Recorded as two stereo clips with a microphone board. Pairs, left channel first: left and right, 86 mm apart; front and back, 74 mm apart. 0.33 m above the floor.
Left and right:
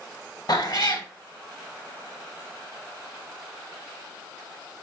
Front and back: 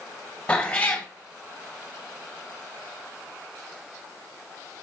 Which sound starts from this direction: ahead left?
A cat meowing, at 0.5 s.